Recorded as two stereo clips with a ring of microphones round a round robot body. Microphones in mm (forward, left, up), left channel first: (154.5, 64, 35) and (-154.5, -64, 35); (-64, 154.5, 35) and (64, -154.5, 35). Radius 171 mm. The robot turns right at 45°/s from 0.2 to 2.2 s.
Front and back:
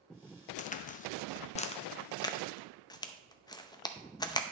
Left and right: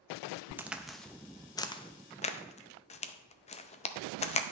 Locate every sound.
0.6 s a crack: 5° left, 0.5 m; by 4.4 s 80° left, 0.5 m